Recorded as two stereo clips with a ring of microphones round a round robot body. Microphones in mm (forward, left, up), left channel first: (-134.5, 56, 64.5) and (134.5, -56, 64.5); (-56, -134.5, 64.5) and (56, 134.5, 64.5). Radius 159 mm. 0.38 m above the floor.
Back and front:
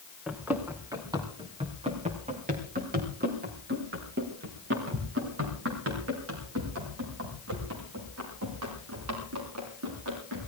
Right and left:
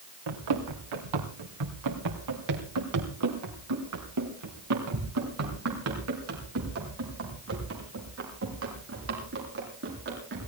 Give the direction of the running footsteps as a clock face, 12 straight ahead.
10 o'clock.